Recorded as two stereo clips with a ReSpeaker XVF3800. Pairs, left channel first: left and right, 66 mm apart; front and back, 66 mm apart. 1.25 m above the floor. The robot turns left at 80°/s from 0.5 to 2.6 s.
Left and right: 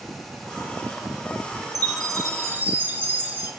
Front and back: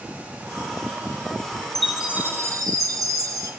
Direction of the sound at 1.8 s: 85° right.